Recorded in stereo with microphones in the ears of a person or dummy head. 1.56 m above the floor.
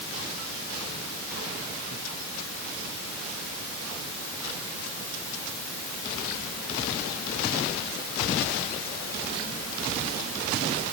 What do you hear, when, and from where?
Only background noise.